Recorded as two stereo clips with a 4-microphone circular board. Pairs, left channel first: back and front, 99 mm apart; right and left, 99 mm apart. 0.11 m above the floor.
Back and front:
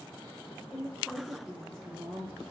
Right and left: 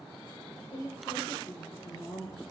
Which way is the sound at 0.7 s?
80° right.